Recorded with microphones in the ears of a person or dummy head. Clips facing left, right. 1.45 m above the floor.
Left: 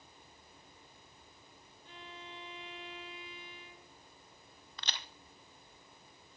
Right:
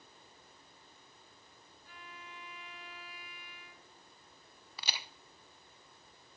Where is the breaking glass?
I don't hear breaking glass.